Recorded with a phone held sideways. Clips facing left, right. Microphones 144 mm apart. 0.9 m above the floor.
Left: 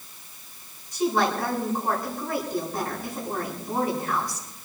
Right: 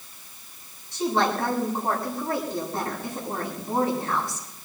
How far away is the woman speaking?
About 7.5 m.